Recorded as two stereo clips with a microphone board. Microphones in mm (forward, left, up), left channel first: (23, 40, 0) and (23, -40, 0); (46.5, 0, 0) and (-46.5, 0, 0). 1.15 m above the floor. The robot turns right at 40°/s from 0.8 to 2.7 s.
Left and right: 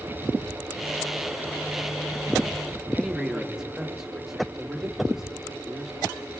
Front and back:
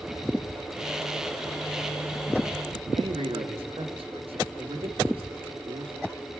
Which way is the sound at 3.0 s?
175° right.